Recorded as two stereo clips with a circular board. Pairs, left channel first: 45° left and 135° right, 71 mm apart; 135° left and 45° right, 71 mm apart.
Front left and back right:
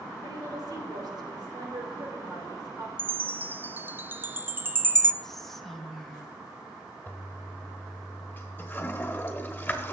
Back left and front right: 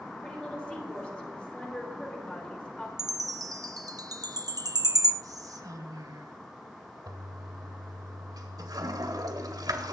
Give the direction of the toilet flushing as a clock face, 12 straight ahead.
1 o'clock.